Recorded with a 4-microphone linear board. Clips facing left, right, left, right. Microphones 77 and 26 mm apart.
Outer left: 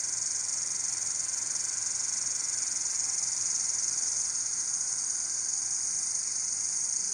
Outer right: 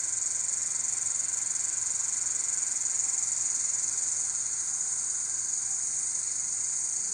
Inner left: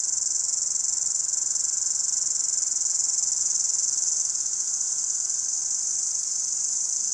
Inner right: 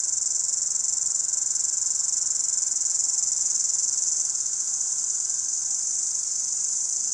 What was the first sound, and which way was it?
An insect, 10° left (ahead or behind).